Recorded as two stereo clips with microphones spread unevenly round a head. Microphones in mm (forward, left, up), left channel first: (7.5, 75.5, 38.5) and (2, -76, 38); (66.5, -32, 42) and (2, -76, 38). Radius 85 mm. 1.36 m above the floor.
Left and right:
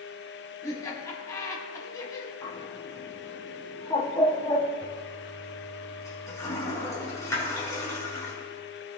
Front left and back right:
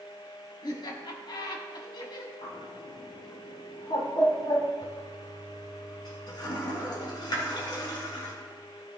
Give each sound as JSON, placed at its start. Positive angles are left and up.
{"t": 0.6, "sound": "laughter", "azimuth_deg": 20, "distance_m": 3.5}
{"t": 2.4, "sound": "a bird", "azimuth_deg": 25, "distance_m": 2.5}
{"t": 4.8, "sound": "a toilet flushing", "azimuth_deg": 20, "distance_m": 4.0}